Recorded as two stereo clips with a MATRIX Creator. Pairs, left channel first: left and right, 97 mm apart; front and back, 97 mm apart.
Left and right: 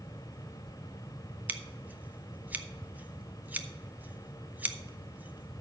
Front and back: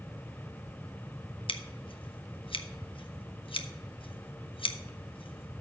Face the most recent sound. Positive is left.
turn(degrees=-15)